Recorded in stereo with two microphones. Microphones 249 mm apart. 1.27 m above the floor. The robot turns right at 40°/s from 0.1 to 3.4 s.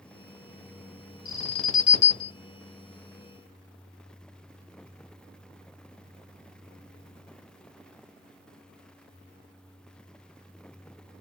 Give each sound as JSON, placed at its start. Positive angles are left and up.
{"t": 1.2, "sound": "an alarm", "azimuth_deg": 160, "distance_m": 1.5}